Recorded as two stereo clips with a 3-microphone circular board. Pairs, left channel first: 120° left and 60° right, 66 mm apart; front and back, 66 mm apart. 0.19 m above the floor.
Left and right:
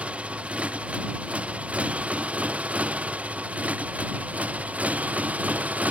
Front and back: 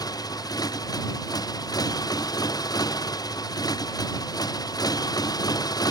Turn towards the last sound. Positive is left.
turn(degrees=10)